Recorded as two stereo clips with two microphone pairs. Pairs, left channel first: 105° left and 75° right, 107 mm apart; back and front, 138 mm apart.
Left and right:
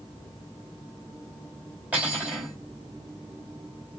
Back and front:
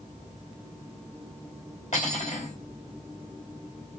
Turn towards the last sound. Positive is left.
turn(degrees=-150)